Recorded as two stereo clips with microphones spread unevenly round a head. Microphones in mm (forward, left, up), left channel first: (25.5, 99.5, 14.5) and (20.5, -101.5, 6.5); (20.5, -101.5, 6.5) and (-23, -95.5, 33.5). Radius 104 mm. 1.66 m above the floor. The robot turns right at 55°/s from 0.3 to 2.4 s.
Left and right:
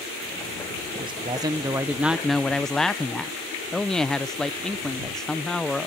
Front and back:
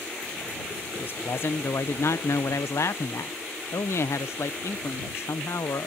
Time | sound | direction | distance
1.0 | a man speaking | 65° right | ?